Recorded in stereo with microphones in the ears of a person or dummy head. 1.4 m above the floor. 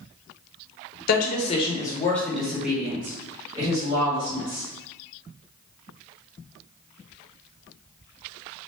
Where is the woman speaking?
50° left (ahead or behind), 0.9 m; by 4.7 s 30° right (ahead or behind), 2.5 m.